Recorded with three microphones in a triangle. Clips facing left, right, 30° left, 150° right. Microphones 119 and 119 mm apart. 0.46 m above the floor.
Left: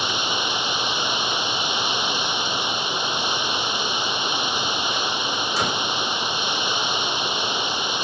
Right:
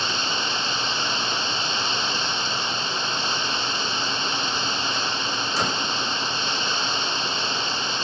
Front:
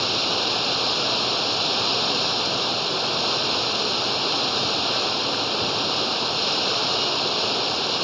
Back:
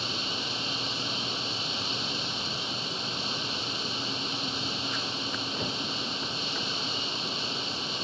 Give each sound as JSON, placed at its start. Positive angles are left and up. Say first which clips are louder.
{"t": 0.0, "sound": "running water", "louder": "left 2 dB, front 10 dB", "azimuth_deg": 15}